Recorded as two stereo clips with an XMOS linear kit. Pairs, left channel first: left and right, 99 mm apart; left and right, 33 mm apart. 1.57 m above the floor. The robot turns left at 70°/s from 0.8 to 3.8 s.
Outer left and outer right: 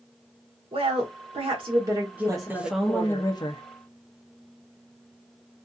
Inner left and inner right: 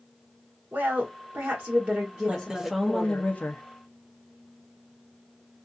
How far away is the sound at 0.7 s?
About 0.9 m.